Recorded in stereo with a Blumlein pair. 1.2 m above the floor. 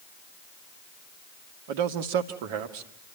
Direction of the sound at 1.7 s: 50° right.